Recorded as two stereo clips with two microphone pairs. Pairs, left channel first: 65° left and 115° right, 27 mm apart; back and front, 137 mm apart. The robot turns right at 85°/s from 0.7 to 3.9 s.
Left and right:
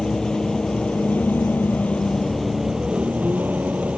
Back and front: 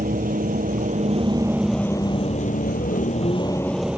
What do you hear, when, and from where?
0.0 s a vehicle: 5° left; by 4.0 s 85° right